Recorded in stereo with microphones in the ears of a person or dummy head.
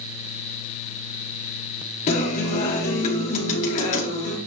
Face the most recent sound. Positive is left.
turn(degrees=40)  # may be behind; listen again after turning